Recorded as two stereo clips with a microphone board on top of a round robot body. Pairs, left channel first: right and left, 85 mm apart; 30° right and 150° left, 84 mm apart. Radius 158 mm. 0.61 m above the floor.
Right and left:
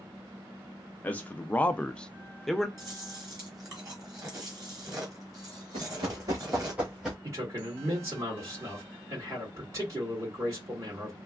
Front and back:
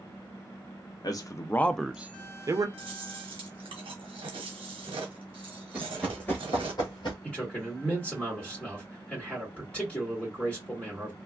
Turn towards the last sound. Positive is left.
turn(degrees=45)